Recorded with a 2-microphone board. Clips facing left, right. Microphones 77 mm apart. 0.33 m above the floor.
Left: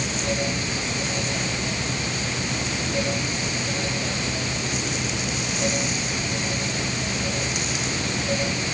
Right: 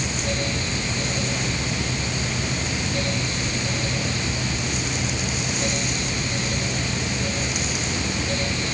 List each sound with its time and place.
Only background noise.